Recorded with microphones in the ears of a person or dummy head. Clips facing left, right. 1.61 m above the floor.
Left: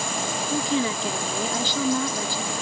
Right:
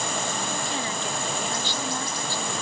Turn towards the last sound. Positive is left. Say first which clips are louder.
# left 6 dB
turn(degrees=75)  # may be behind; listen again after turning